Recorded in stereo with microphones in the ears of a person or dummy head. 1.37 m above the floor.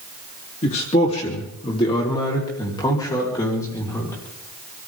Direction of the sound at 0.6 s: 45° left (ahead or behind).